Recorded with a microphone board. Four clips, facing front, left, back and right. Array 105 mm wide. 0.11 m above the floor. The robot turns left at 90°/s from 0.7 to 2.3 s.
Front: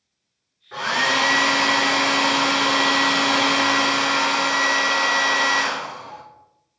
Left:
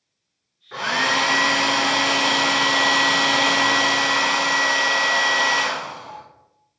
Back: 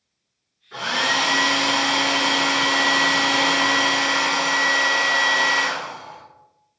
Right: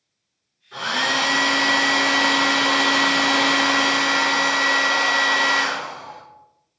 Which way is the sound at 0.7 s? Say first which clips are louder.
Left 2 dB, front 2 dB; 65° left.